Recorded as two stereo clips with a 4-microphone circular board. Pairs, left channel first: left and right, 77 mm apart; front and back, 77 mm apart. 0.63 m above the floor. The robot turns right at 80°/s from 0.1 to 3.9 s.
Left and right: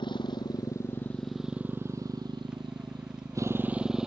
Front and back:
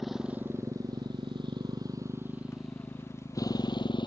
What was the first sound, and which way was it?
A motorcycle, 90° left.